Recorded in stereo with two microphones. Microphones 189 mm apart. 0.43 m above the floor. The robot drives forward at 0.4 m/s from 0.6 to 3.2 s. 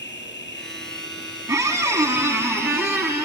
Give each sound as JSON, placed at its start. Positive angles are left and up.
{"t": 0.0, "sound": "an insect", "side_deg": 75, "distance_m": 1.6}
{"t": 1.5, "sound": "a squeak", "side_deg": -15, "distance_m": 1.7}